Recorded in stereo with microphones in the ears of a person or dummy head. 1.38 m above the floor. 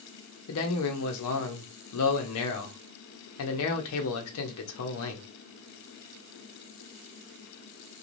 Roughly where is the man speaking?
Left.